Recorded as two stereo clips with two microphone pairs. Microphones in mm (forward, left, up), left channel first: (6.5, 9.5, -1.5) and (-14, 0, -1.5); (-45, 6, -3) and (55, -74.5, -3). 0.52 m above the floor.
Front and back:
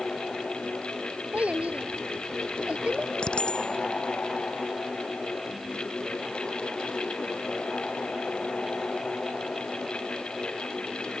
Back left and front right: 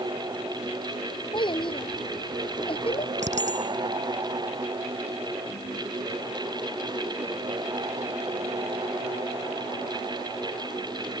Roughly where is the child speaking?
Behind.